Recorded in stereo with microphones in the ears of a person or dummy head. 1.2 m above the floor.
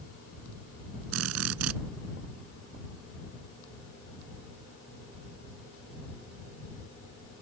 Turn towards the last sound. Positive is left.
turn(degrees=-80)